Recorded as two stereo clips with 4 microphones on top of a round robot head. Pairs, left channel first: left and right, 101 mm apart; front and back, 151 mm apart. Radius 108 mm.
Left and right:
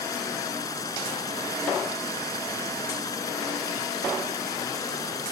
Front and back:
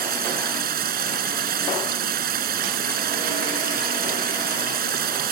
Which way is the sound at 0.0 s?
160° left.